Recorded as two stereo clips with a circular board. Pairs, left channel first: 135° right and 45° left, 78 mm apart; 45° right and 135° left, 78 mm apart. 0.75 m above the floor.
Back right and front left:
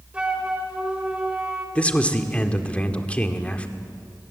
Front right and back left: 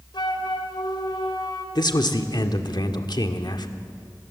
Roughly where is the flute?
Ahead right.